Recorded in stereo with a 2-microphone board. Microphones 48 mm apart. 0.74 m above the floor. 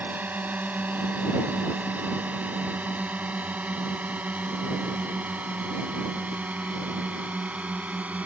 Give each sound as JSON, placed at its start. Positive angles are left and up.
{"t": 0.0, "sound": "a drone", "side_deg": -40}